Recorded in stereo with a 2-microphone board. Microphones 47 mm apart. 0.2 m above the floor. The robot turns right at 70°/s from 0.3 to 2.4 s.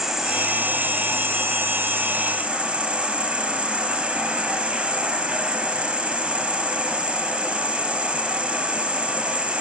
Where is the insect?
170° right, 1.0 m; by 9.6 s 20° right, 1.0 m.